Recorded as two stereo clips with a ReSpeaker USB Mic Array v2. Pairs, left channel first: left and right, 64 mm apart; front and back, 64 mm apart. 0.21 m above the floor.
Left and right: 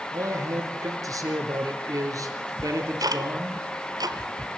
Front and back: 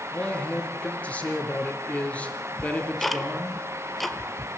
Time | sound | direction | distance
0.1 | a man speaking | 70° right | 3.5 m
2.6 | ticking | 90° right | 1.2 m